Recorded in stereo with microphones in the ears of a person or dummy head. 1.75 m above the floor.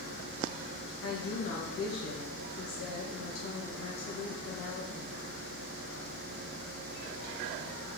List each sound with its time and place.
1.0 s a woman speaking: 80° left, 2.5 m